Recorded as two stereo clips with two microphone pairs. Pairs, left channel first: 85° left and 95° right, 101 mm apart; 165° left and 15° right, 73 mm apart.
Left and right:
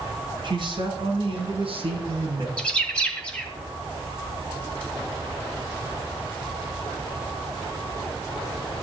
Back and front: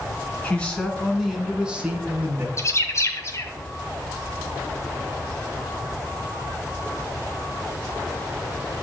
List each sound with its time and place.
0.4 s a man speaking: 120° right, 3 m; by 2.5 s 70° right, 3.5 m
2.6 s a bird: 160° left, 2 m